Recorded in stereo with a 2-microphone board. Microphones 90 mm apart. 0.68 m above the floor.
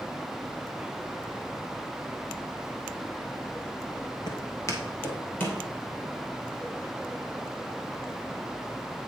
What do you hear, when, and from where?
4.3 s footsteps: 55° left (ahead or behind), 1.1 m; by 5.6 s 15° left (ahead or behind), 2.5 m